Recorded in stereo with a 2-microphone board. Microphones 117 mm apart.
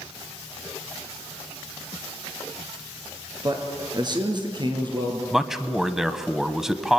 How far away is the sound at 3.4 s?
About 3.5 m.